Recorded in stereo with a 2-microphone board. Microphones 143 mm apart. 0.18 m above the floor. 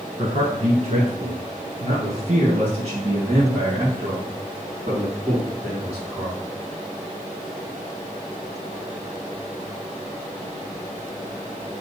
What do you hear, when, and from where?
0.2 s a man speaking: 45° right (ahead or behind), 1.5 m; by 6.4 s 35° right (ahead or behind), 7 m